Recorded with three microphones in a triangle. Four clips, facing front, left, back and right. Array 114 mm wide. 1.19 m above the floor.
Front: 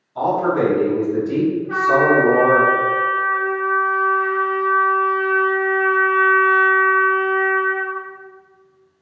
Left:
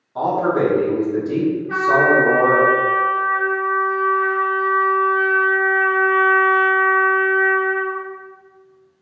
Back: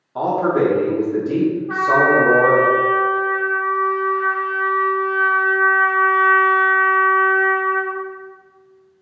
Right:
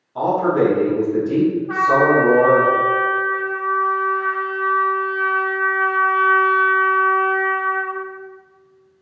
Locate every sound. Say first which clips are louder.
0.1 s a man speaking: right 1 dB, back 1 dB; 170° left, 1.3 m
1.7 s a trumpet: left 1 dB, even; 130° right, 1.8 m